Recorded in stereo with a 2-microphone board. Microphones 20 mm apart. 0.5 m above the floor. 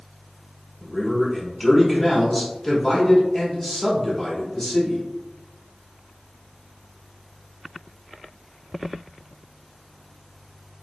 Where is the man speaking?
25° left (ahead or behind), 1.1 m.